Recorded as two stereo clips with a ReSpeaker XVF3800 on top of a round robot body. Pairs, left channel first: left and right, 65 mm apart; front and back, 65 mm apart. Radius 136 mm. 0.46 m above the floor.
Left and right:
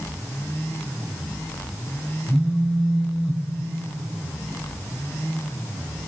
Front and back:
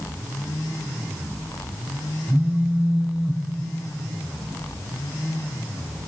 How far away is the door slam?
I don't hear a door slam.